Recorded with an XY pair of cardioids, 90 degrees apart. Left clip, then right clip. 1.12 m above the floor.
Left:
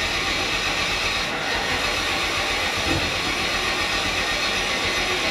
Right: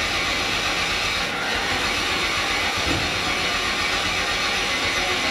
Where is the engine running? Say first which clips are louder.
Right 1 dB; 5° right, 7.5 m.